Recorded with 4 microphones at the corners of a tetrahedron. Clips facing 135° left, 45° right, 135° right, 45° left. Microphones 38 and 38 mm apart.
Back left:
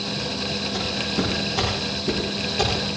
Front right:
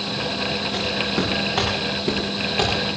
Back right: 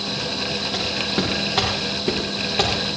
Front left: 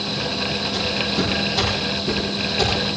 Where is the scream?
I don't hear a scream.